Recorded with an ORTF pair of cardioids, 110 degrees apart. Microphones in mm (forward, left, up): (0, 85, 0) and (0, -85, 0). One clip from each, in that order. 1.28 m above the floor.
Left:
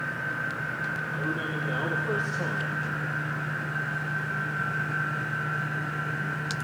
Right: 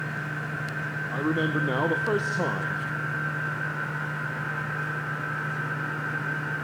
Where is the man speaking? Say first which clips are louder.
Right 3 dB; 50° right, 0.8 m.